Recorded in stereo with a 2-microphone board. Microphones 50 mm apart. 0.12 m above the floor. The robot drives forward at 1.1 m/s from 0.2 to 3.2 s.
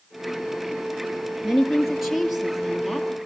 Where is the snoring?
No snoring in this recording.